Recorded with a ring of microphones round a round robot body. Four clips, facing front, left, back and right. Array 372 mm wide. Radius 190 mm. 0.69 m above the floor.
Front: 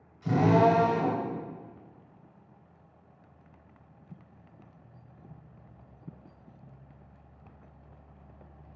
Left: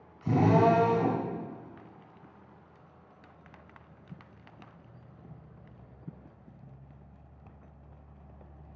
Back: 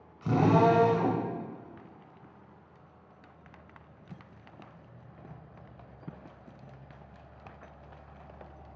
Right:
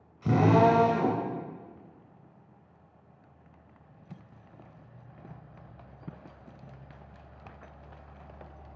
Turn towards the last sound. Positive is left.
turn(degrees=-115)